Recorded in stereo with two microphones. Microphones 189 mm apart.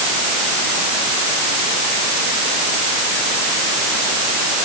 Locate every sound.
Only background noise.